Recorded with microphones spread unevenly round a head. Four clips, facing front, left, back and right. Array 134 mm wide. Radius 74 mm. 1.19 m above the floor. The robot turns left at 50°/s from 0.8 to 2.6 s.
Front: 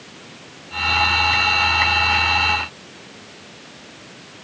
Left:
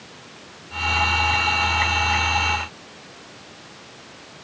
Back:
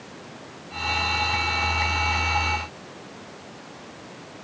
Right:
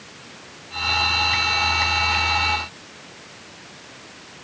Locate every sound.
Only background noise.